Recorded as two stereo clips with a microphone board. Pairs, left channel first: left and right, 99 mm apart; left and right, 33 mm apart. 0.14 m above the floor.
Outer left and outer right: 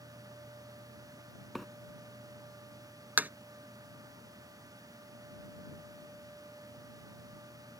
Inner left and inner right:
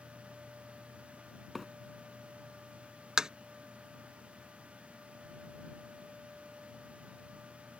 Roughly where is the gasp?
No gasp in this recording.